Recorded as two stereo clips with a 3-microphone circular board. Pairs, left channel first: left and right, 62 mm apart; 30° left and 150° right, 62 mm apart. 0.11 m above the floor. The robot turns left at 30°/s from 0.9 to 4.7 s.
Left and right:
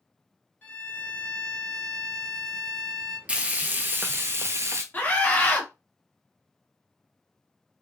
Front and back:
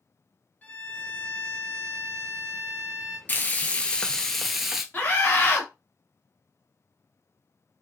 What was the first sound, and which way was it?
A violin, 60° left.